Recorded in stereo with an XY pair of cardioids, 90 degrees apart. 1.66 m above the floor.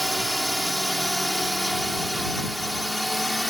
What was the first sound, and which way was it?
A drone, 10° right.